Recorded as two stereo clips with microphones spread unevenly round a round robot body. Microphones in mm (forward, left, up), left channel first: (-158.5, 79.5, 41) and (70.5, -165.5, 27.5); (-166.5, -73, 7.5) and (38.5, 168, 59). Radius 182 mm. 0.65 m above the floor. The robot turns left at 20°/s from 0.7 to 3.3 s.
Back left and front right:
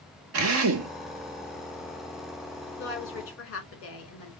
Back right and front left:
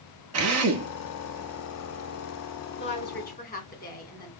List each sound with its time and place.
0.3 s a drill: straight ahead, 0.6 m; by 0.9 s 5° right, 0.6 m
2.8 s a woman speaking: 170° right, 2 m; by 4.3 s straight behind, 2 m